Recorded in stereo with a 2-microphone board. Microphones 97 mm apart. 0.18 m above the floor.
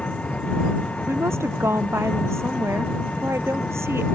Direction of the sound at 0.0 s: 10° left (ahead or behind).